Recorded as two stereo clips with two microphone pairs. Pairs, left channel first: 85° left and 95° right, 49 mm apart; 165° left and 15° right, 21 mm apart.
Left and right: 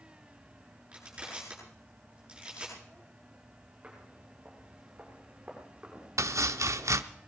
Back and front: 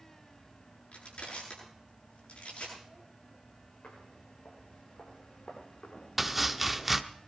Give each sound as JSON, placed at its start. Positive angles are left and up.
{"t": 0.9, "sound": "crushing", "azimuth_deg": -165, "distance_m": 8.0}
{"t": 3.8, "sound": "footsteps", "azimuth_deg": -165, "distance_m": 8.5}
{"t": 6.2, "sound": "chopping", "azimuth_deg": -90, "distance_m": 0.7}